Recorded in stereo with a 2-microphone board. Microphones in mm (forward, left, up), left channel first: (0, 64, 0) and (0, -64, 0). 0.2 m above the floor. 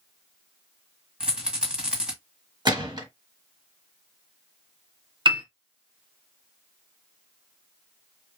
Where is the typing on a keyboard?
I don't hear typing on a keyboard.